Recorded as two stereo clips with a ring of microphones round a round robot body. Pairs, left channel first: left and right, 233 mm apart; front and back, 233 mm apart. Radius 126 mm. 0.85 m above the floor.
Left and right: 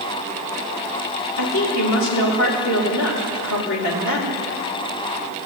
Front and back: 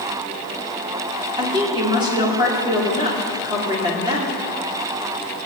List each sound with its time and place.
1.4 s a woman speaking: 110° left, 2.5 m